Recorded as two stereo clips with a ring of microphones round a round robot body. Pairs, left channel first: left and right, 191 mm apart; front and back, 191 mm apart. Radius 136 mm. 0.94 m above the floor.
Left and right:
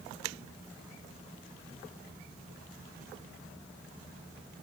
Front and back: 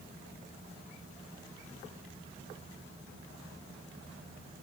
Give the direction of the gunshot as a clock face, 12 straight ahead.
I don't hear a gunshot.